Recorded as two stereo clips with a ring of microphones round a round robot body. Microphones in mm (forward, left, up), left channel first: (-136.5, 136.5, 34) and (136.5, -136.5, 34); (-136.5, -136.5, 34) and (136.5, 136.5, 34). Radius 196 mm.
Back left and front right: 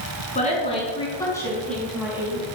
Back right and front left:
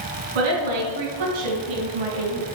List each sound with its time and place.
0.3 s a woman speaking: 60° left, 5 m; by 2.5 s 35° left, 3 m